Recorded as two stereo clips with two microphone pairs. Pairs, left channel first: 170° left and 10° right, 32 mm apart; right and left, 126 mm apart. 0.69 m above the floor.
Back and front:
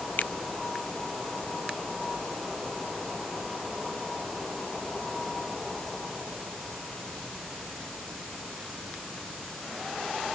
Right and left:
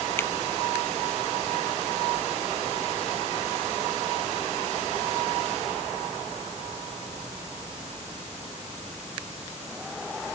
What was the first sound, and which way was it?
A finger snap, 160° right.